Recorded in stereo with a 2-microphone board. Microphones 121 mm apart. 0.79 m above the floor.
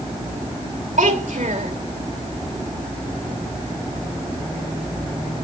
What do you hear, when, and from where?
1.0 s a child speaking: 80° right, 2 m